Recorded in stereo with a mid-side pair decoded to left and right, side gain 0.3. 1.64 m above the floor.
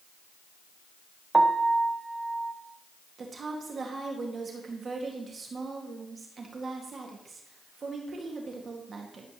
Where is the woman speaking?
60° right, 2 m.